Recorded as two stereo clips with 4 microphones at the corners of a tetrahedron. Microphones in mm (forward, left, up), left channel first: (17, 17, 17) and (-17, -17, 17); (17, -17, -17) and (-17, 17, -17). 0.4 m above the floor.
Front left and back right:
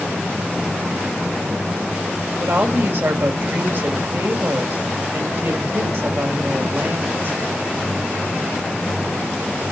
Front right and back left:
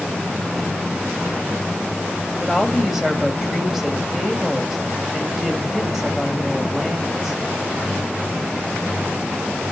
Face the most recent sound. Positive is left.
turn(degrees=-140)